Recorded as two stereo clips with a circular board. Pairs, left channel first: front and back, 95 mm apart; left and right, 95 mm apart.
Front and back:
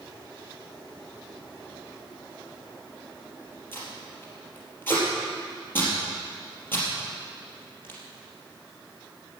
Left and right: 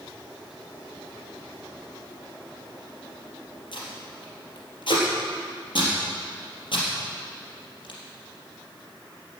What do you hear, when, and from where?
3.7 s tape being pulled: 65° left, 3.5 m